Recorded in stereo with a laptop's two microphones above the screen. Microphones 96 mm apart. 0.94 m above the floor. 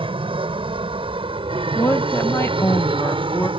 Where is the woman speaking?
25° left (ahead or behind).